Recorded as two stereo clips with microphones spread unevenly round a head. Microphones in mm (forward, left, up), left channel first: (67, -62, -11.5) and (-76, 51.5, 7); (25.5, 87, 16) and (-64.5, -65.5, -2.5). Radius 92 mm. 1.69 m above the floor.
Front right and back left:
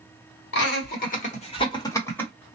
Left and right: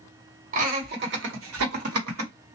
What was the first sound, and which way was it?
Laughter, 65° right.